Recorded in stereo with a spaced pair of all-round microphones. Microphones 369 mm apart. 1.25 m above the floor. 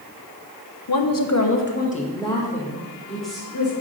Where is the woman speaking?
75° left (ahead or behind), 0.7 m; by 3.7 s centre (ahead or behind), 3 m.